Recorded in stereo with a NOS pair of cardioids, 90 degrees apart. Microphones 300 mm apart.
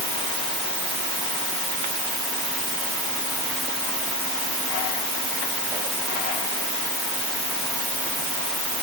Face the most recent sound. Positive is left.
No sound to turn to.